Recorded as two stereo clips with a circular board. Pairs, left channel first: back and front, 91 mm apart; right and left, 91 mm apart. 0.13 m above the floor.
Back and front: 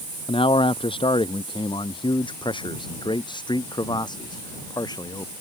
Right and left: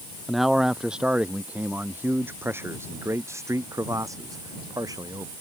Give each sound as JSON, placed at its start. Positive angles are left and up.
{"t": 0.3, "sound": "a man speaking", "azimuth_deg": 180}